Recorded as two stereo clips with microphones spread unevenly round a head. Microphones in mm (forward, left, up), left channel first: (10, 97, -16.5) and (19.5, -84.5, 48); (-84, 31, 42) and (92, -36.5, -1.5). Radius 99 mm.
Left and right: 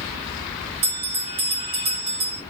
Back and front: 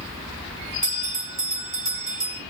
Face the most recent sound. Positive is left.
turn(degrees=-95)